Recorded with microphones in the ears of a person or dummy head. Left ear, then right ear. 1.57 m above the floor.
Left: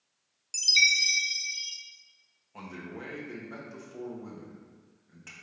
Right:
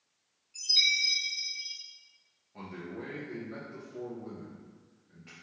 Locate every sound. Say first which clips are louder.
0.5 s a chime: left 3 dB; 75° left (ahead or behind), 1.2 m
2.5 s a man speaking: even; 50° left (ahead or behind), 1.9 m